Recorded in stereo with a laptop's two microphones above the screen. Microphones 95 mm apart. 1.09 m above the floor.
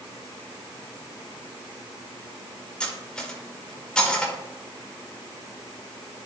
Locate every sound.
2.8 s cutlery clinking: 10° left (ahead or behind), 1.8 m